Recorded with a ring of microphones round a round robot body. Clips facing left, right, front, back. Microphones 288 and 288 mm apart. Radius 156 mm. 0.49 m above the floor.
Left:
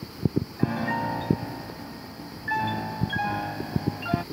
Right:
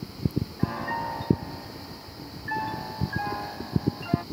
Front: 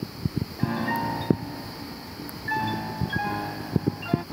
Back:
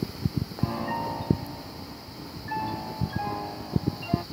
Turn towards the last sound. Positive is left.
turn(degrees=60)